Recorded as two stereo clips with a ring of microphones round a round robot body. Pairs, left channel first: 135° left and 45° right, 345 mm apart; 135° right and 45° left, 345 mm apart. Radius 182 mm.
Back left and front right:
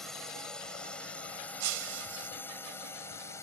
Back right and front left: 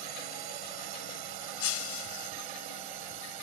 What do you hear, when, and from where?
0.0 s a drone: 45° left; by 3.4 s 55° left
1.6 s breaking glass: 85° right